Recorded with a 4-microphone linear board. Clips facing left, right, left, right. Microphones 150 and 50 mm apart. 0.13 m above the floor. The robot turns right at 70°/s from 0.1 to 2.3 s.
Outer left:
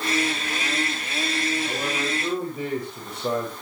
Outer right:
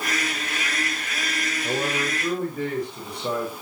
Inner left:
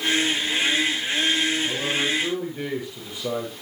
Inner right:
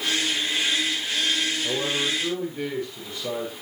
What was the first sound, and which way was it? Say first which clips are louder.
A man speaking: outer right 2 dB, inner left 1 dB; 40° right.